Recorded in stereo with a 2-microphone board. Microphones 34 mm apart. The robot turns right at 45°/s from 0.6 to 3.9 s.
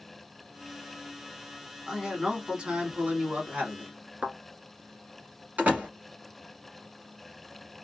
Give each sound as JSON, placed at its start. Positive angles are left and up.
{"t": 1.9, "sound": "a man speaking", "azimuth_deg": -175, "distance_m": 1.5}
{"t": 4.2, "sound": "a thud", "side_deg": -50, "distance_m": 0.8}
{"t": 5.6, "sound": "a door slam", "side_deg": -55, "distance_m": 1.3}